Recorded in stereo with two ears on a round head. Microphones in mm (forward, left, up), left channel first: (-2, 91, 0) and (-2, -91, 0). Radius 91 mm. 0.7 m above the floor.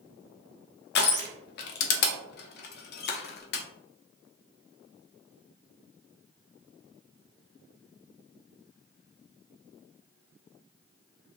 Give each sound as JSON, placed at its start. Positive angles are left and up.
{"t": 0.9, "sound": "crushing", "side_deg": 55, "distance_m": 0.5}